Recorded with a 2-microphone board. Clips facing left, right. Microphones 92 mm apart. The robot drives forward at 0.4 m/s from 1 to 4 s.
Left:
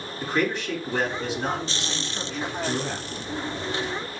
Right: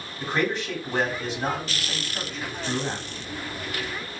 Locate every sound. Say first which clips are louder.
0.2 s a man speaking: even; 45° right (ahead or behind), 2.5 m; by 3.1 s 50° right (ahead or behind), 2 m